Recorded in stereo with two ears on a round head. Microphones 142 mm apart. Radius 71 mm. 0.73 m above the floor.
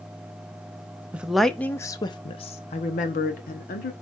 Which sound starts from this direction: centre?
A woman speaking, at 1.1 s.